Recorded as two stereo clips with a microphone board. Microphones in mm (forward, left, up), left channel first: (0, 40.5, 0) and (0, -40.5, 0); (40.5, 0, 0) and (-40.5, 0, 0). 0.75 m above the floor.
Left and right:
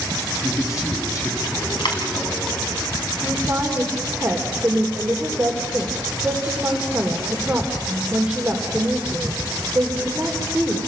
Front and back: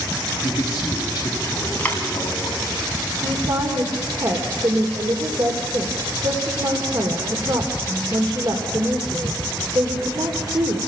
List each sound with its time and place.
0.4 s a man speaking: 45° left, 5.5 m
1.8 s a dropped coin: 70° left, 3.5 m
3.2 s a woman speaking: 165° right, 3 m